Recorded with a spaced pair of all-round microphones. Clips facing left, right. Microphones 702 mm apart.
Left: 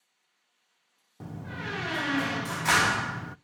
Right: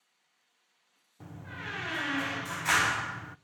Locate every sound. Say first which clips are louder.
1.2 s a door slam: left 7 dB; 75° left (ahead or behind), 0.6 m